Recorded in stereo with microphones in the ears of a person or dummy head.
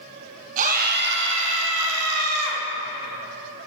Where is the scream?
40° right (ahead or behind), 1.4 m; by 2.6 s 85° right, 2 m.